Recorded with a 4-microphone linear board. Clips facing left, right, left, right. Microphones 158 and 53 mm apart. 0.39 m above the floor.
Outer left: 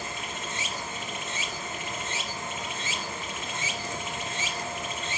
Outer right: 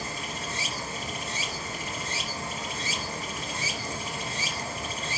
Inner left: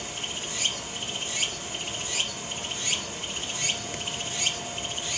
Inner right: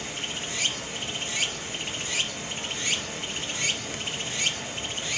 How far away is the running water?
About 3.5 m.